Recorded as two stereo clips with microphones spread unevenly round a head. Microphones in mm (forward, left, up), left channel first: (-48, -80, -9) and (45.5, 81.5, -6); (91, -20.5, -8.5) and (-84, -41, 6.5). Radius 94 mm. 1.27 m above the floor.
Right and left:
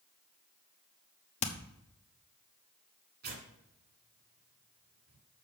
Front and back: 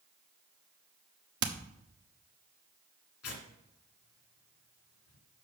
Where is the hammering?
175° right, 1.1 m.